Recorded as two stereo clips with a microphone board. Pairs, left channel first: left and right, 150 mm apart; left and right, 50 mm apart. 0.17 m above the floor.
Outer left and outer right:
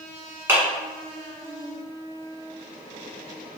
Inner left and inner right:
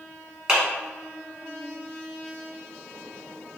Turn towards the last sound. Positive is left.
turn(degrees=-15)  # may be behind; listen again after turning